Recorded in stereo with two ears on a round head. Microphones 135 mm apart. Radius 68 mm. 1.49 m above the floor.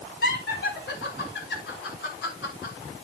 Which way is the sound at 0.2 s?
75° left (ahead or behind).